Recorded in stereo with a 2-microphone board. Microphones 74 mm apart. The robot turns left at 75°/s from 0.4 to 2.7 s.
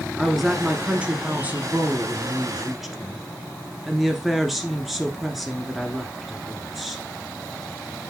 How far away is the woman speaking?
About 1.3 m.